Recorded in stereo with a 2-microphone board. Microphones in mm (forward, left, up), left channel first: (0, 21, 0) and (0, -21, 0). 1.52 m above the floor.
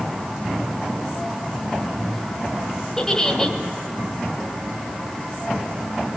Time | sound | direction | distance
3.0 | a giggle | 15° left (ahead or behind) | 2.5 m